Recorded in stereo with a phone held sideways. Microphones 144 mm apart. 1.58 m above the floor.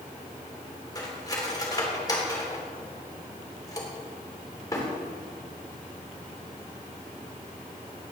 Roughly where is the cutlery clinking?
Left.